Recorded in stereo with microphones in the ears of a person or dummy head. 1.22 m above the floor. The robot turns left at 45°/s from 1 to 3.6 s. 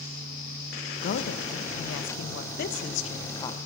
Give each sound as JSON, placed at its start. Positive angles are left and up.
{"t": 1.0, "sound": "a woman speaking", "azimuth_deg": 130, "distance_m": 0.7}